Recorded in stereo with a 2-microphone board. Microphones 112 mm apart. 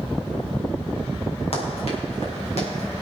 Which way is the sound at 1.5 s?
60° left (ahead or behind).